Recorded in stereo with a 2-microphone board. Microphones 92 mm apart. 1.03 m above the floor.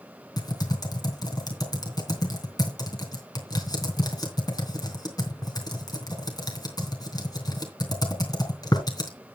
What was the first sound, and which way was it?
Typing on a keyboard, 45° left (ahead or behind).